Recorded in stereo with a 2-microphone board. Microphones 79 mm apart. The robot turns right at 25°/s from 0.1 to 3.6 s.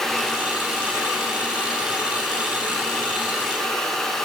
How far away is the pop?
No pop in this recording.